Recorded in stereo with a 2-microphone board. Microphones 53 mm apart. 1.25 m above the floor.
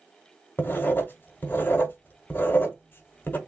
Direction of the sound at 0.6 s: 35° left (ahead or behind).